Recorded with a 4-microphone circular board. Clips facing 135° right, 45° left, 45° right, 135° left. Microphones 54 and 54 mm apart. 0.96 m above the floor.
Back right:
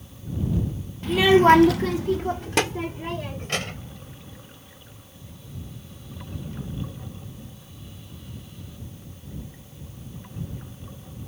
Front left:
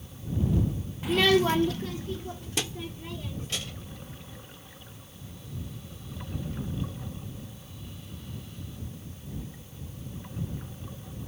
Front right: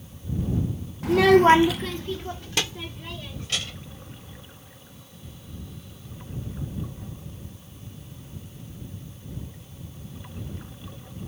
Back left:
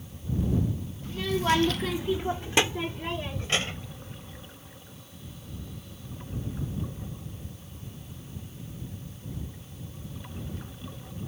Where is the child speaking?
35° right; by 3.9 s 170° right.